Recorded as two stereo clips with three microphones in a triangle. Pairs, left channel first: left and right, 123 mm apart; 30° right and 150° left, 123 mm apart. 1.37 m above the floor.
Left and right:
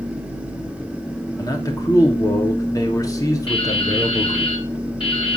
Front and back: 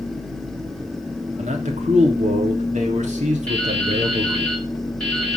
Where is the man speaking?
150° left, 3 m.